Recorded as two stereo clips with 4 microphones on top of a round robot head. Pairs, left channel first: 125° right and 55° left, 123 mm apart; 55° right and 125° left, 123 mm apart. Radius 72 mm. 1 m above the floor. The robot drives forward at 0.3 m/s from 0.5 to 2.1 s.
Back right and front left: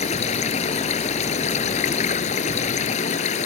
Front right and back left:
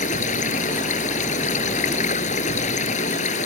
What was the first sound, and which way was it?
Running water, 85° right.